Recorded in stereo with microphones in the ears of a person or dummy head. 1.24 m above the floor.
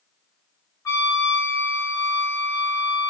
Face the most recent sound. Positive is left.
turn(degrees=15)  # may be behind; listen again after turning